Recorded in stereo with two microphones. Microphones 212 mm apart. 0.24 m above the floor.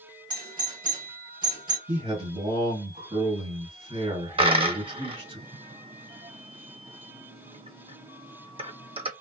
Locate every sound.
0.3 s a doorbell: 20° right (ahead or behind), 1.5 m
1.9 s a man speaking: 25° right (ahead or behind), 1.8 m
4.4 s a dropped coin: 25° right (ahead or behind), 0.6 m